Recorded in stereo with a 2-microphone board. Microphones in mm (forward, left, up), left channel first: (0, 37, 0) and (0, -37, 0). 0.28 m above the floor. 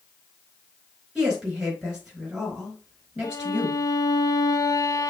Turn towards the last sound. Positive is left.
turn(degrees=50)  # may be behind; listen again after turning